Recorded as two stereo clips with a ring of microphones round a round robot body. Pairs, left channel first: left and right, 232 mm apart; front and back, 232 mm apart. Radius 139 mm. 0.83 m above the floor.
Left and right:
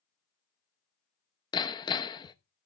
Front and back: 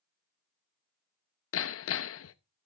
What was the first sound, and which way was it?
Hammering, 20° left.